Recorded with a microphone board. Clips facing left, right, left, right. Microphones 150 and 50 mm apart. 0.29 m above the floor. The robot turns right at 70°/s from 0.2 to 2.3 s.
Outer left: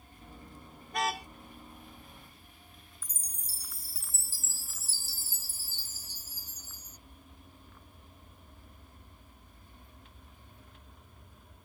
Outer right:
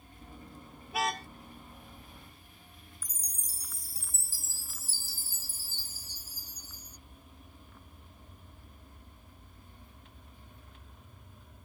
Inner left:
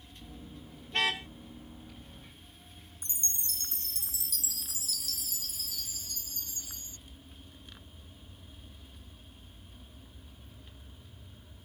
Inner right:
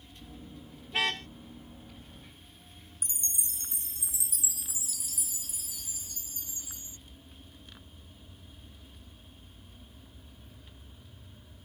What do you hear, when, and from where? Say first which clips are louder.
0.9 s a car horn: even, even; 10° right (ahead or behind); by 1.3 s 15° left (ahead or behind)
3.0 s a chime: outer right 1 dB, inner left 1 dB; 15° right (ahead or behind)